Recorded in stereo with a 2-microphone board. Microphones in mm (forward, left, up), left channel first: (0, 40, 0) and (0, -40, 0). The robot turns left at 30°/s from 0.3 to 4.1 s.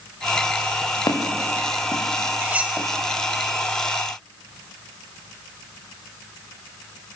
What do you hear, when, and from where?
1.1 s footsteps: 60° left (ahead or behind), 4.5 m; by 2.9 s 15° left (ahead or behind), 3.5 m
2.4 s cutlery clinking: 25° right (ahead or behind), 1.5 m; by 2.8 s 10° right (ahead or behind), 1.5 m